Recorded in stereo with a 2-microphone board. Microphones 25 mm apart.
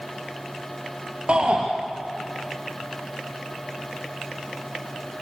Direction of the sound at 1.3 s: 40° right (ahead or behind).